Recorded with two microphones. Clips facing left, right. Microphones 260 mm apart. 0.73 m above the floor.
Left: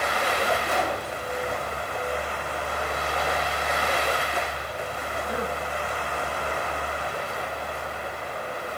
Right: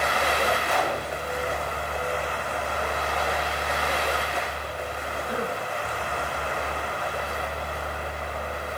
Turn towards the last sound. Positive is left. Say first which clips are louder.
# even
turn(degrees=25)  # may be behind; listen again after turning